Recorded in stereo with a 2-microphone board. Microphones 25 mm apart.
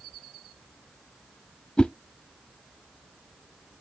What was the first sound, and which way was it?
A whoosh, 35° left (ahead or behind).